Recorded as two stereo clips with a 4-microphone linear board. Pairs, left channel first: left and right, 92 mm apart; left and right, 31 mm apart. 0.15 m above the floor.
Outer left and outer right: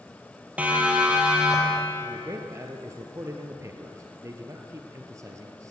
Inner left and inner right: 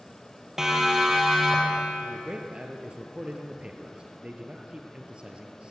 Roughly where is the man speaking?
Right.